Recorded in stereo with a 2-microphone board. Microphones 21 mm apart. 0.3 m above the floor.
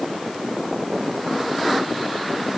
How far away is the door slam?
I don't hear a door slam.